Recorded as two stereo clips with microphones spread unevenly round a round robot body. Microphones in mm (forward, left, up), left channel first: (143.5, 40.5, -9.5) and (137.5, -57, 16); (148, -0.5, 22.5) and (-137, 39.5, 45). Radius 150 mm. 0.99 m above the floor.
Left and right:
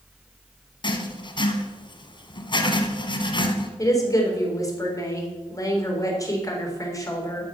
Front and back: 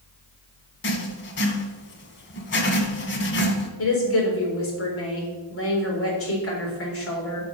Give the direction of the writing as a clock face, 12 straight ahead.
11 o'clock.